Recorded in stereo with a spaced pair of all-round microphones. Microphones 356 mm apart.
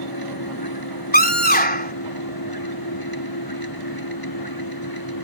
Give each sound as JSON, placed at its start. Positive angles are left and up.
{"t": 0.0, "sound": "a machine running", "side_deg": 80}
{"t": 1.1, "sound": "a scream", "side_deg": 25}